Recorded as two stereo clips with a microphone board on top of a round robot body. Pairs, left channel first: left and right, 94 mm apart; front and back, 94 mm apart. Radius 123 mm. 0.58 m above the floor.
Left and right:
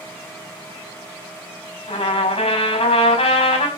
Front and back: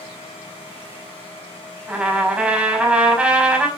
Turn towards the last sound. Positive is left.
turn(degrees=100)